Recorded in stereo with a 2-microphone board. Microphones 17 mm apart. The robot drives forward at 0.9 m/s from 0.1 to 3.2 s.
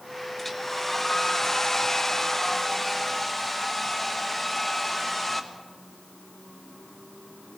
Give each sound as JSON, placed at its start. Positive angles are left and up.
{"t": 0.4, "sound": "a hair dryer", "side_deg": 10, "distance_m": 1.5}